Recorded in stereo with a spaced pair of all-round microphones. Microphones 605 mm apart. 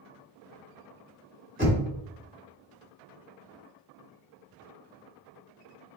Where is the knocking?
20° left (ahead or behind), 1.6 m.